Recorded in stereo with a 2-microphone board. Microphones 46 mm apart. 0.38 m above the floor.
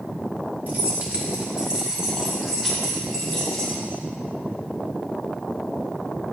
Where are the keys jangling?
45° right (ahead or behind), 1.7 m; by 3.8 s 5° left (ahead or behind), 3 m.